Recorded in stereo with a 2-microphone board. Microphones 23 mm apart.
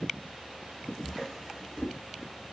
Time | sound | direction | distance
1.0 | a drawer | 5° right (ahead or behind) | 0.9 m